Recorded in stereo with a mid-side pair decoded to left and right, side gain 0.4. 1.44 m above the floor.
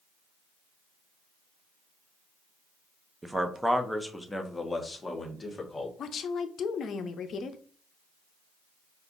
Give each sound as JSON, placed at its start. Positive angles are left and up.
{"t": 3.2, "sound": "a man speaking", "azimuth_deg": -20, "distance_m": 0.9}
{"t": 6.0, "sound": "a woman speaking", "azimuth_deg": 60, "distance_m": 0.6}